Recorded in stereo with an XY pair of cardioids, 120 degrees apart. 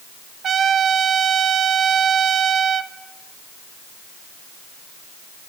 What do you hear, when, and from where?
0.4 s a trumpet: 45° right, 0.7 m